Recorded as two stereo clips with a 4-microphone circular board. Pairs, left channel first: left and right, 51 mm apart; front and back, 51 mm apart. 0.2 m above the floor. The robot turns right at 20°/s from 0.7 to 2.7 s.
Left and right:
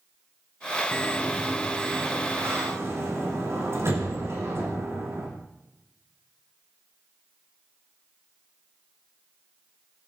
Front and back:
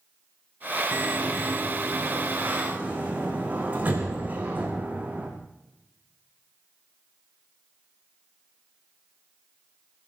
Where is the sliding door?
160° right, 6.5 m; by 5.3 s 120° right, 6.5 m.